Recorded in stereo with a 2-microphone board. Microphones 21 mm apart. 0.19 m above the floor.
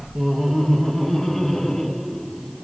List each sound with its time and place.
0.1 s laughter: 10° right (ahead or behind), 1.2 m; by 2.6 s 15° left (ahead or behind), 2 m